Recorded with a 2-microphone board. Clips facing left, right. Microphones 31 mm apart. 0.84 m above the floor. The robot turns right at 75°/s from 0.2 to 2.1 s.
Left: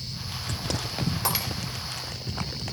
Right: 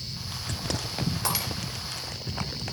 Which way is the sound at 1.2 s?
5° left (ahead or behind).